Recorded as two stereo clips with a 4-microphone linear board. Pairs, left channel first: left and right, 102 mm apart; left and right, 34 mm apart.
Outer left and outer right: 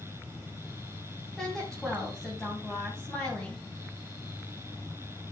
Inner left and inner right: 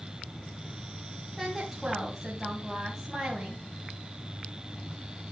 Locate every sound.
1.4 s a woman speaking: 5° left (ahead or behind), 3 m